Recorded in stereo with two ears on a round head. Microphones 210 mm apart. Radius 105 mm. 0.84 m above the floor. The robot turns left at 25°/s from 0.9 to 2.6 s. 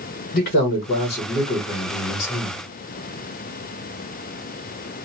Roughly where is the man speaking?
Left.